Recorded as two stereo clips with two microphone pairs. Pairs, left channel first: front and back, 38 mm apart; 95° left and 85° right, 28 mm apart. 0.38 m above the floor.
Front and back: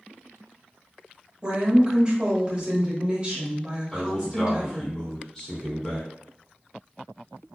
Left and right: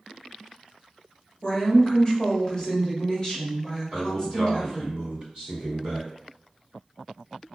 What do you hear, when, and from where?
1.4 s a woman speaking: 135° left, 1.1 m
3.9 s a man speaking: 65° right, 1.8 m